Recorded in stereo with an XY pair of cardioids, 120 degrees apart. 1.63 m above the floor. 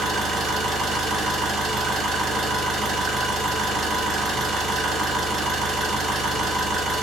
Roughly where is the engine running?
Ahead right.